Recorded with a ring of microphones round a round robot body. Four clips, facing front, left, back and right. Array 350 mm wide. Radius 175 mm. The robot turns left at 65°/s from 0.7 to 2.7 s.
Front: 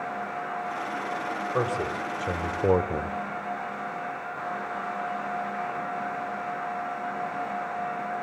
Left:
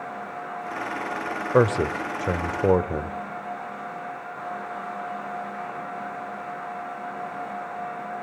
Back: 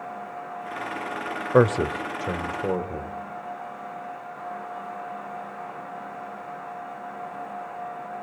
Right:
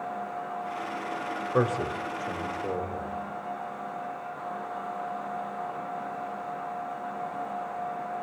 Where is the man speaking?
145° left, 1.4 m; by 3.2 s 70° left, 1.4 m.